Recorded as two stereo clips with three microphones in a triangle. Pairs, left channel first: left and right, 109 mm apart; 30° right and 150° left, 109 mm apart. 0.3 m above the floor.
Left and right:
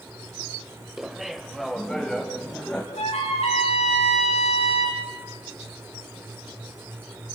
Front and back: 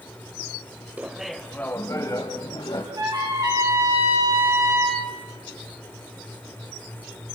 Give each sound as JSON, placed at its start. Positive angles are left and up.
{"t": 1.0, "sound": "laughter", "azimuth_deg": -170, "distance_m": 1.5}
{"t": 3.0, "sound": "a trumpet", "azimuth_deg": 95, "distance_m": 7.0}